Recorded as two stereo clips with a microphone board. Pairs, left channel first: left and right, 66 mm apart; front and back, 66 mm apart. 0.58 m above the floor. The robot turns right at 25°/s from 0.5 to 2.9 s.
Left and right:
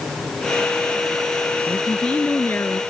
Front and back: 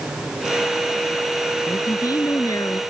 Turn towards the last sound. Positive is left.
turn(degrees=40)